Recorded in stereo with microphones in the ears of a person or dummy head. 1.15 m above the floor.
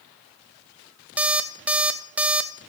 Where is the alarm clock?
10° right (ahead or behind), 0.5 m.